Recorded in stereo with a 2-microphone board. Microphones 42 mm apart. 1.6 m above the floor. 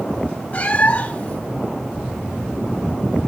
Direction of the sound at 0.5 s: 35° left (ahead or behind).